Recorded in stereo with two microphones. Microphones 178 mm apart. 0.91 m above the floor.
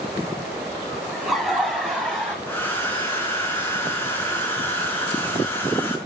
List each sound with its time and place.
1.1 s laughter: centre (ahead or behind), 7.5 m; by 2.4 s 5° left (ahead or behind), 6.5 m
2.5 s a hair dryer: 10° left (ahead or behind), 5 m